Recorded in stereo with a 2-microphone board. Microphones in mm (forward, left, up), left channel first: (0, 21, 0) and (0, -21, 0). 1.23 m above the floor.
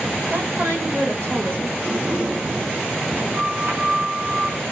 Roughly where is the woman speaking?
Right.